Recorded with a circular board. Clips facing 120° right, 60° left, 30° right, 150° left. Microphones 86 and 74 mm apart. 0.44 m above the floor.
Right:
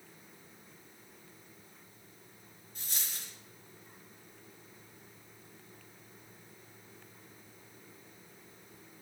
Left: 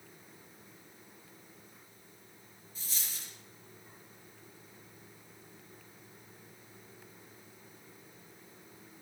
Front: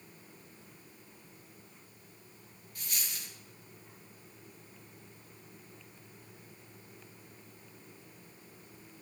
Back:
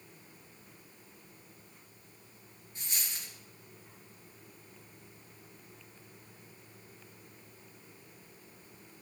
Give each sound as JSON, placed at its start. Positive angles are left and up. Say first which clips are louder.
{"t": 2.8, "sound": "a dropped coin", "louder": "right 1 dB, even", "azimuth_deg": -145, "distance_m": 3.0}